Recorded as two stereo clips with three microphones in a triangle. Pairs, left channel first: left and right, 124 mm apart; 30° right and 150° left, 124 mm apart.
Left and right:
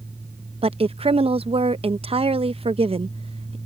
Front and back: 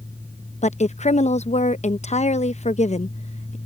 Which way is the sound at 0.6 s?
50° right.